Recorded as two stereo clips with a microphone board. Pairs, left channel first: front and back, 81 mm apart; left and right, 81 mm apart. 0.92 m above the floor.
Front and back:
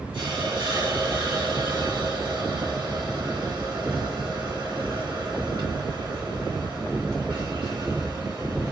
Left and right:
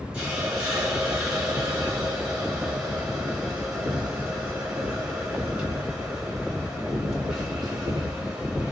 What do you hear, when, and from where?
0.1 s a hiss: 170° right, 2.5 m